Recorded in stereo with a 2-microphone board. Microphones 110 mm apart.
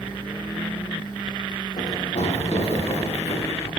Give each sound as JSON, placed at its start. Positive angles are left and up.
{"t": 1.8, "sound": "running footsteps", "side_deg": 80, "distance_m": 9.0}